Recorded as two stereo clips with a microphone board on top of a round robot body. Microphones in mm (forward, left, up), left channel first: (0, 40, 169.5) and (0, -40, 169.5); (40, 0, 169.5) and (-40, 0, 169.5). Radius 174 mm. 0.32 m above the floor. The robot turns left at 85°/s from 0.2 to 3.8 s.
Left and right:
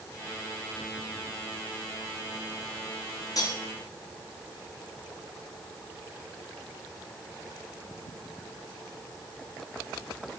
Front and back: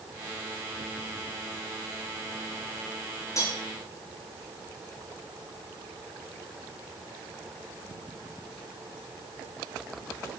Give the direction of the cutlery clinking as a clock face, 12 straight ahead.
10 o'clock.